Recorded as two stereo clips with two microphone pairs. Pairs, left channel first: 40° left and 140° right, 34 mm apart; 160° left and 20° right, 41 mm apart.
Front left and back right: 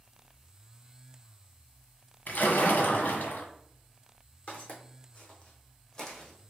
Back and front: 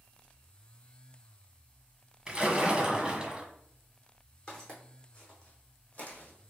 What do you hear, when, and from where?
2.3 s a splash: 50° left, 1.3 m
4.5 s footsteps: 90° left, 2 m; by 6.5 s 120° left, 1.6 m